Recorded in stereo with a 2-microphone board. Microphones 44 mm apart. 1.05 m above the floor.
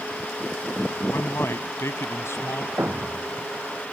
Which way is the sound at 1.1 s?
70° left (ahead or behind).